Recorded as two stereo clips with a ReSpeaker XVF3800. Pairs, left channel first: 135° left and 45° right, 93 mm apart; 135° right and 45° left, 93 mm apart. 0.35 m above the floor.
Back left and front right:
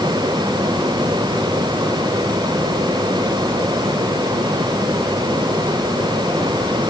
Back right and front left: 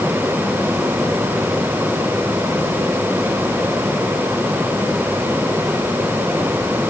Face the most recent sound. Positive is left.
No sound to turn to.